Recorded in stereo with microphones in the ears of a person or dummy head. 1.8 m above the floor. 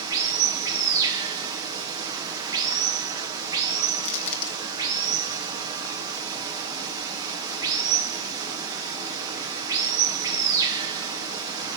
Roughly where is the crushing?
Left.